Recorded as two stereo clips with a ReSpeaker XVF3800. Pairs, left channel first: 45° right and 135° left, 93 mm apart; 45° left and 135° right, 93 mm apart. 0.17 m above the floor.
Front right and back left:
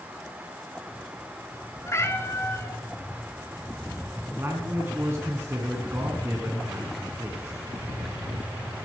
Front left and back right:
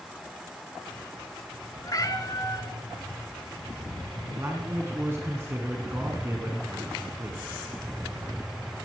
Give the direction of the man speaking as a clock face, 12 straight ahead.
6 o'clock.